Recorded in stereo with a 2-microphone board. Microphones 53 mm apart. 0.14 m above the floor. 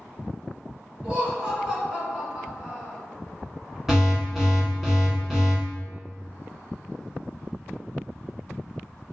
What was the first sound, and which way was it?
Laughter, 20° right (ahead or behind).